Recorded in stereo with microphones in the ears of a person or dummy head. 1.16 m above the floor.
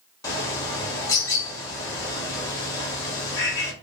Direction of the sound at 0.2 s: 20° left (ahead or behind).